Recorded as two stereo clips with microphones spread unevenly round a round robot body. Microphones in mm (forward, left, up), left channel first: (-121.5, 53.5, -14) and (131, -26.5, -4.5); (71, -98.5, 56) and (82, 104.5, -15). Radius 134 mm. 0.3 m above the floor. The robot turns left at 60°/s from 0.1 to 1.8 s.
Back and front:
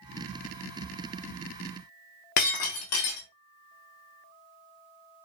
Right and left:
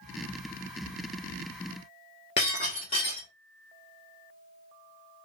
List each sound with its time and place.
2.4 s breaking glass: 160° right, 1.1 m